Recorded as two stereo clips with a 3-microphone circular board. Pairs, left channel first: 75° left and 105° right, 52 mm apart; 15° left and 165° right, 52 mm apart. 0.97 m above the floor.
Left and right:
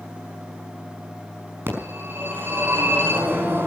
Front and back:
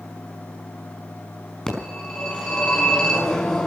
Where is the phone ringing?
60° right, 5.5 m.